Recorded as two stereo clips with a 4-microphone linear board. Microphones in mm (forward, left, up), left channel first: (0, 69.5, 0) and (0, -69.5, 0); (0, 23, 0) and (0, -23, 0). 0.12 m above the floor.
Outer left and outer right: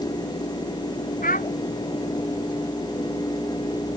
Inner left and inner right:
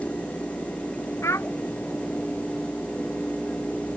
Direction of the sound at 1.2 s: 85° left.